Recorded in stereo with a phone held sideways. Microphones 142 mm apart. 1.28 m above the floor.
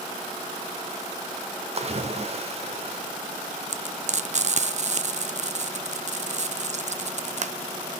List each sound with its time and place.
1.8 s a splash: 45° right (ahead or behind), 1.3 m
3.7 s frying: 55° right (ahead or behind), 0.5 m